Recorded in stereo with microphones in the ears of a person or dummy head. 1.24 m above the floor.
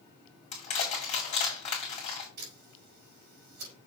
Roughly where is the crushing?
Left.